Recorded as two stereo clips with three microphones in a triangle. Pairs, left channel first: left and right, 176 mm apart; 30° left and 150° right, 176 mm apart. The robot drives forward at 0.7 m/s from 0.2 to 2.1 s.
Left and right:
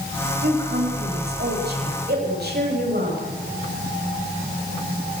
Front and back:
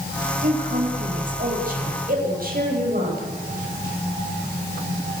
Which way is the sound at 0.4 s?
110° right.